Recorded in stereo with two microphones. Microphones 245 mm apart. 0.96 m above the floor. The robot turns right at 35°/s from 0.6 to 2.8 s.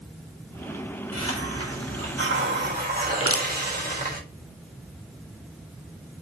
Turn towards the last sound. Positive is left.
turn(degrees=-65)  # may be behind; listen again after turning